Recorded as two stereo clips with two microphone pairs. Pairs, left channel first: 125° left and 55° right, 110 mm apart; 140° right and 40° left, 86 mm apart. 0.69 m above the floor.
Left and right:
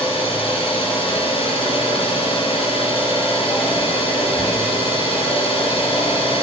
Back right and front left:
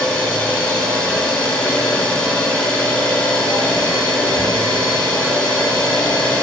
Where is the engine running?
150° left, 5.5 m.